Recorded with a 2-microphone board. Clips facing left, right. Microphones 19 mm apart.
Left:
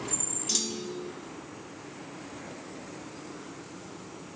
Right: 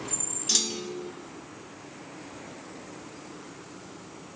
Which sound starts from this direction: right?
A clunk, at 0.5 s.